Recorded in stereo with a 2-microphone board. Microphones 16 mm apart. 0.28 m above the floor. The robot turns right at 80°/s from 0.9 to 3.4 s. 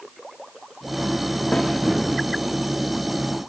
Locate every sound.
1.5 s a snare drum: 40° left (ahead or behind), 9.5 m; by 1.7 s 25° left (ahead or behind), 9.5 m